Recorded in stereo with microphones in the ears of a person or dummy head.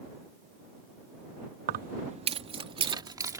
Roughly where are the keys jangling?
Right.